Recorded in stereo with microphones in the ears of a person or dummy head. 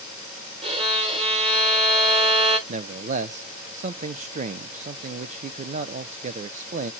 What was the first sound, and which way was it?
A violin, 30° right (ahead or behind).